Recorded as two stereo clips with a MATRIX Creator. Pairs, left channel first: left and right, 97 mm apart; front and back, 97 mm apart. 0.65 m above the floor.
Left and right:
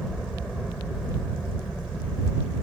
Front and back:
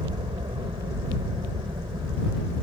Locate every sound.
0.0 s a helicopter: 175° left